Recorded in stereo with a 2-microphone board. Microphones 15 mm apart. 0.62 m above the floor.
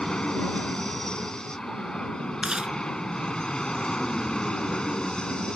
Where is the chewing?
85° right.